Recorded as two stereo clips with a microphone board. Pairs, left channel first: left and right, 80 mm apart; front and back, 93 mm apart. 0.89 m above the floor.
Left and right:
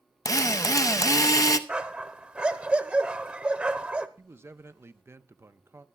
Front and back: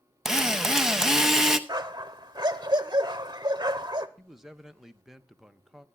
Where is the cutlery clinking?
No cutlery clinking in this recording.